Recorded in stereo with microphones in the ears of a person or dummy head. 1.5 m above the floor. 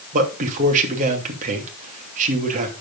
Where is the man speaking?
40° right (ahead or behind), 2.5 m.